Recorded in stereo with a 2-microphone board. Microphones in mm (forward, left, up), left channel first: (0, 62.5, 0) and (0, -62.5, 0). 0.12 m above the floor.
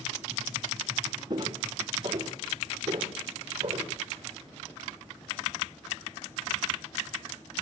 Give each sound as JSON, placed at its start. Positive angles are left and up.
{"t": 1.3, "sound": "footsteps", "side_deg": -30, "distance_m": 3.5}